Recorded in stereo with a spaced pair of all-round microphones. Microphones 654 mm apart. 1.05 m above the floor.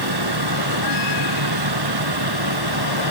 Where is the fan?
35° right (ahead or behind).